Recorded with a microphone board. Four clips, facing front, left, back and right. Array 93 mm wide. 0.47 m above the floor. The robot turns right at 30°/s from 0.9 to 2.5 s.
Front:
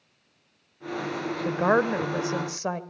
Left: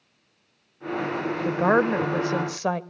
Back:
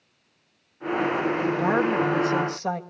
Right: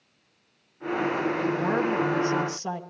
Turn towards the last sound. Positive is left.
turn(degrees=80)